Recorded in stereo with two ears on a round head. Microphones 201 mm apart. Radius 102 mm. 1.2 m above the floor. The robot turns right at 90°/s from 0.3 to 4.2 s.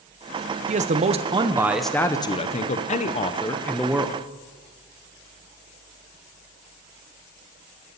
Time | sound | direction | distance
0.7 | a man speaking | 100° right | 0.6 m